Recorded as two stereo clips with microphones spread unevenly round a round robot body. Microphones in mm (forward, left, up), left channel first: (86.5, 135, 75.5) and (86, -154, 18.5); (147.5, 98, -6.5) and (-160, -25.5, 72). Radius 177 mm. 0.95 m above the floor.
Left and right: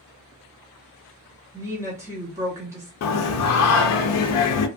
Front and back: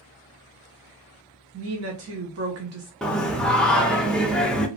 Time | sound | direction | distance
1.5 | a woman speaking | 135° right | 0.8 m
3.0 | singing | 90° left | 0.5 m